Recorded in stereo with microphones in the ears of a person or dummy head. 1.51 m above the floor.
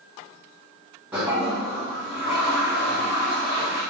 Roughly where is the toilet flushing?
Centre.